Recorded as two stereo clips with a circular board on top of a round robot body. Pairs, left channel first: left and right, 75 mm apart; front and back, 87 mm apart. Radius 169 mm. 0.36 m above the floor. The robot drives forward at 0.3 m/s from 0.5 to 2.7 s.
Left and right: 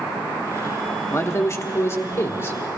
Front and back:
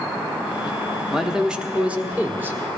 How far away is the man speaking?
About 1.3 m.